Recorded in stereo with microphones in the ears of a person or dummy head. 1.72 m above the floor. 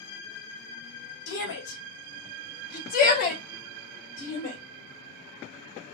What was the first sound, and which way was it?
A shout, 65° left (ahead or behind).